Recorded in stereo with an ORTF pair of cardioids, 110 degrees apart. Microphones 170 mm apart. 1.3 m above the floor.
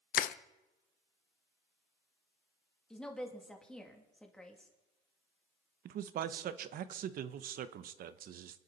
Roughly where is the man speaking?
Ahead right.